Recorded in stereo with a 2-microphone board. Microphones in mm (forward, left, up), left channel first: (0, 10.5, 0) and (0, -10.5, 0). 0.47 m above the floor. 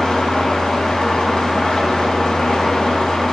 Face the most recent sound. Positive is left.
turn(degrees=40)  # may be behind; listen again after turning